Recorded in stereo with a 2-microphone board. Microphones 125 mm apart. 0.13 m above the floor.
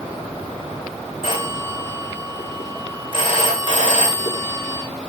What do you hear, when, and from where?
1.2 s a phone ringing: 45° left (ahead or behind), 7.5 m